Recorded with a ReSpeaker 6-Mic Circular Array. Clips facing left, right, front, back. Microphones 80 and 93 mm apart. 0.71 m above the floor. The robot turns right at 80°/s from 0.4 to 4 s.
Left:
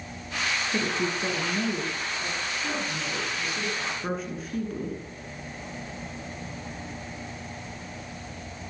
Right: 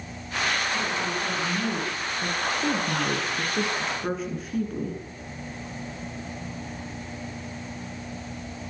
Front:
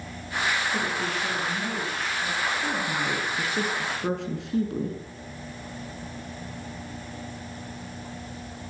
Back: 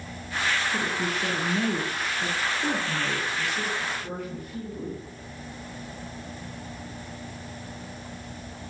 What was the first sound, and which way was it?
A woman speaking, 100° left.